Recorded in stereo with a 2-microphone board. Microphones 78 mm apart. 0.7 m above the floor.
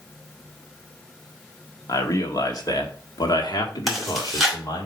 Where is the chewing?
Centre (ahead or behind), 3 m.